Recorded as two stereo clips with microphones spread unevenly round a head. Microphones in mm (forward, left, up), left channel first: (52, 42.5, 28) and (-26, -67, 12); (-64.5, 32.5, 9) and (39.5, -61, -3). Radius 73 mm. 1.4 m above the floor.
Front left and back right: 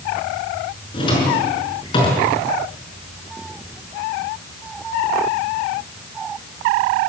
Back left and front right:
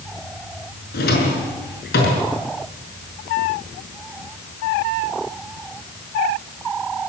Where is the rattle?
No rattle in this recording.